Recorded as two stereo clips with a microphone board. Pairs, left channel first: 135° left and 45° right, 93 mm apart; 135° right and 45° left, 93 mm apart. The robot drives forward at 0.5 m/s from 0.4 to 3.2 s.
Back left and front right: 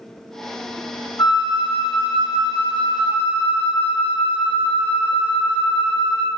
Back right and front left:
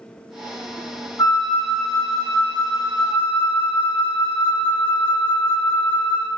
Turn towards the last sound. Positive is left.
turn(degrees=180)